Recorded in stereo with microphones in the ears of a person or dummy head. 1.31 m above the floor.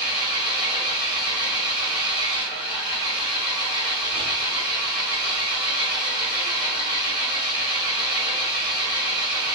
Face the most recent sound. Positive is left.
turn(degrees=-20)  # may be behind; listen again after turning